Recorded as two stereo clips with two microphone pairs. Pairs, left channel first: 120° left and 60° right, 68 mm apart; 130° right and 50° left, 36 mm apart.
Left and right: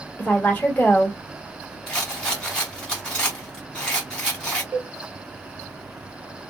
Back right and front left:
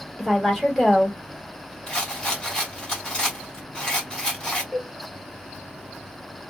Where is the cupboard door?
No cupboard door in this recording.